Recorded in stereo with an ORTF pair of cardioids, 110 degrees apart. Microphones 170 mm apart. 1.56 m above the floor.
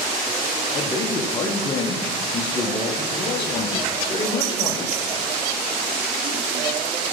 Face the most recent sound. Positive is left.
turn(degrees=25)